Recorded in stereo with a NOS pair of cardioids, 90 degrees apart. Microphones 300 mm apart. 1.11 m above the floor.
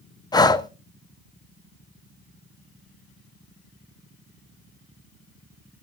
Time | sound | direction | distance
0.3 | breathing | 15° left | 0.9 m